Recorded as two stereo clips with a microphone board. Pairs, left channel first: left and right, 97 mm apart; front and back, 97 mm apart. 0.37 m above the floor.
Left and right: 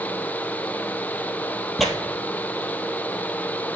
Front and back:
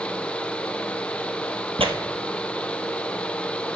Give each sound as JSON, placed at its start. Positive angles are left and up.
{"t": 1.8, "sound": "tearing paper", "azimuth_deg": 180, "distance_m": 1.4}